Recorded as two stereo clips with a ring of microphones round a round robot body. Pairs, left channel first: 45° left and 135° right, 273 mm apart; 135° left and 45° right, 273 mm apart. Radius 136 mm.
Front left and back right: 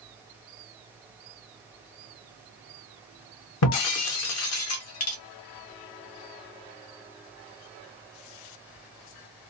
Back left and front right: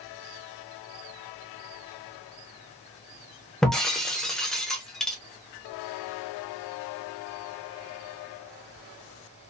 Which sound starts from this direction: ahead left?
Breaking glass, at 3.6 s.